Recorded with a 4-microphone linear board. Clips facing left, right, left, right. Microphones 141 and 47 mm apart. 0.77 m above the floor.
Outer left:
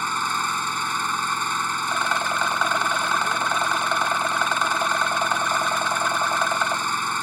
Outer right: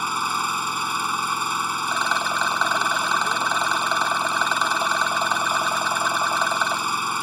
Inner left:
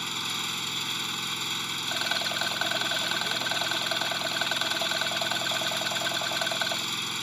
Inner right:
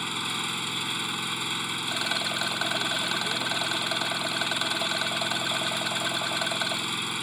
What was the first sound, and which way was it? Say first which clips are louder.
An engine running: outer right 1 dB, inner right 2 dB; 10° right (ahead or behind).